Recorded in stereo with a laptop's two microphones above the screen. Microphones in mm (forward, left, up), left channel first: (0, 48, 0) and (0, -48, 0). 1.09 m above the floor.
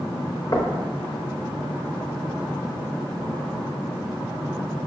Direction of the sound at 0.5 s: 35° left (ahead or behind).